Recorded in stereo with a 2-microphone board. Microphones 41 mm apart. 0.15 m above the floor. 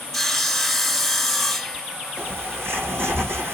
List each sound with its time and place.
0.1 s sawing: centre (ahead or behind), 1.5 m
2.2 s a bird: 80° right, 5 m